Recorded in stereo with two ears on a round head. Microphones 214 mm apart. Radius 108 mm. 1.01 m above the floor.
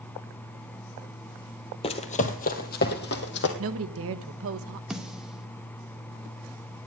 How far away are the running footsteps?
About 1.1 m.